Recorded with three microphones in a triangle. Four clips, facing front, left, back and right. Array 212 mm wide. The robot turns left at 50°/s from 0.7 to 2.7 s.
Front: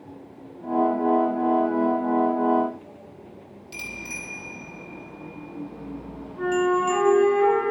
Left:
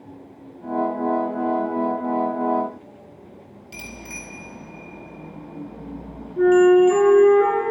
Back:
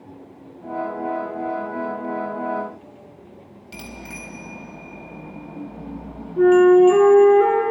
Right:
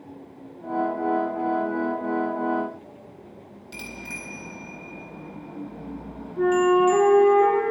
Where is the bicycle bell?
170° right, 3 m.